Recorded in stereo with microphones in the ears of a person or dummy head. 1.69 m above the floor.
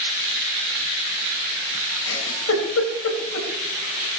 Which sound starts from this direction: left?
A giggle, at 2.1 s.